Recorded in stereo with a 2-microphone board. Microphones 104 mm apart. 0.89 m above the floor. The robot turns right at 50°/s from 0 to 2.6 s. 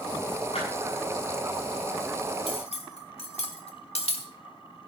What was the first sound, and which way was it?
A clap, 65° left (ahead or behind).